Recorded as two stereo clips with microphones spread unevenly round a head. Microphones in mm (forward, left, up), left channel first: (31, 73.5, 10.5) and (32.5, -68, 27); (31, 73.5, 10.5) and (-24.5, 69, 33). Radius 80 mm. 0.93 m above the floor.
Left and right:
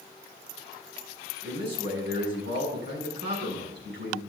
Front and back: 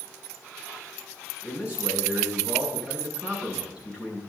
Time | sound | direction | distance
1.4 | a man speaking | 100° right | 6.5 m